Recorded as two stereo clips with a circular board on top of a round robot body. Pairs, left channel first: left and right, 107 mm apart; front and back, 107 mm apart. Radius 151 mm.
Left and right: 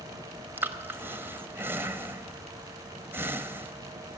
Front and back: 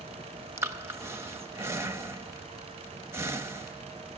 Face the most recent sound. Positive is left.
turn(degrees=-140)